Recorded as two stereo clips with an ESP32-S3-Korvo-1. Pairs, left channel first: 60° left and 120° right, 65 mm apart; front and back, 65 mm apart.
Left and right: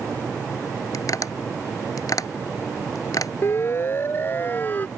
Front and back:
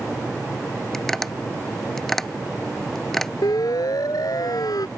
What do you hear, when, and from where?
0.9 s tapping: 85° left
3.4 s a siren: 10° left; by 4.9 s straight ahead